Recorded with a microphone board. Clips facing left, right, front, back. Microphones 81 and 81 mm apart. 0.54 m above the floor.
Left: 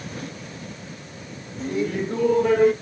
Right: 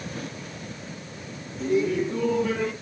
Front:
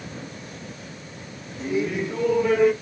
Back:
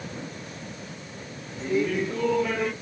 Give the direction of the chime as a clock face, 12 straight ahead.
I don't hear a chime.